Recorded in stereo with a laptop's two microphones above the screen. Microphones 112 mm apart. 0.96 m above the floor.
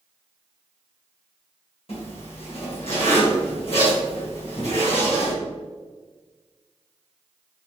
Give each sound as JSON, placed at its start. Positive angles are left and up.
{"t": 1.9, "sound": "a zipper", "side_deg": 60, "distance_m": 1.7}